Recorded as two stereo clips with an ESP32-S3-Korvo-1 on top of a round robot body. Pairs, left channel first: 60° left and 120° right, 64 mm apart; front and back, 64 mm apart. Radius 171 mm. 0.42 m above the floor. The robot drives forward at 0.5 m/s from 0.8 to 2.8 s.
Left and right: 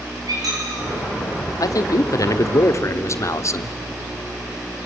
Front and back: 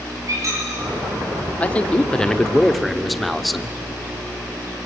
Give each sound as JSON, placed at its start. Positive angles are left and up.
{"t": 0.3, "sound": "a squeak", "azimuth_deg": -140, "distance_m": 8.0}
{"t": 1.6, "sound": "a man speaking", "azimuth_deg": 65, "distance_m": 1.8}